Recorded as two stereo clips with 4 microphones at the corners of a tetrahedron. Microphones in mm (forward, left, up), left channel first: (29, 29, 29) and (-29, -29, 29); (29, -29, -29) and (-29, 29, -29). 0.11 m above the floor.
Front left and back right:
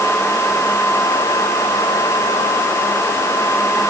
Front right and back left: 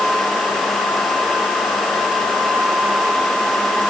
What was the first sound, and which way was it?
Only background noise.